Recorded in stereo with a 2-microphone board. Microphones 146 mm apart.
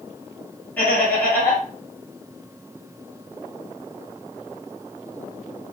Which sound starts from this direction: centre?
Laughter, at 0.8 s.